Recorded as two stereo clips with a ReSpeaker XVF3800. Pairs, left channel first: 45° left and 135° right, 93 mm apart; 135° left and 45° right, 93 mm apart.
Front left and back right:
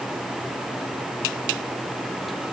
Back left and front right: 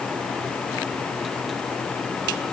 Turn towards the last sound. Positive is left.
No sound to turn to.